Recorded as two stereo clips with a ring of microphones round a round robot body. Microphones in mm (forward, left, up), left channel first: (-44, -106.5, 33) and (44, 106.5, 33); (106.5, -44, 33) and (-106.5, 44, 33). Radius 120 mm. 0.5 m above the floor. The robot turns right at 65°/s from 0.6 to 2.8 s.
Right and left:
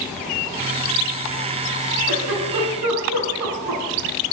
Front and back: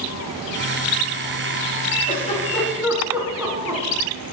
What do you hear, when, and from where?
2.1 s a giggle: 30° left, 6.5 m; by 3.8 s 75° left, 6.5 m